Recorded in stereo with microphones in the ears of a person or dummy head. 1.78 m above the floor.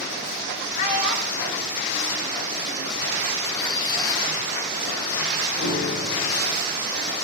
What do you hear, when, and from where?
0.8 s a child speaking: 30° left (ahead or behind), 2.0 m
3.4 s a squeak: 20° left (ahead or behind), 1.2 m
5.6 s a piano: 60° left (ahead or behind), 3 m